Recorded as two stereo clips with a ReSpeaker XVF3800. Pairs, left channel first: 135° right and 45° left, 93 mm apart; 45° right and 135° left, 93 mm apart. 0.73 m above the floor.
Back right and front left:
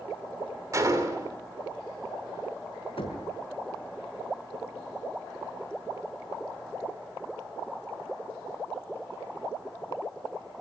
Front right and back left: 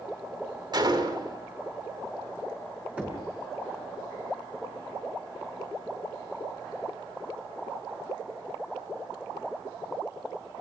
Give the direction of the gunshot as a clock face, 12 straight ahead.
9 o'clock.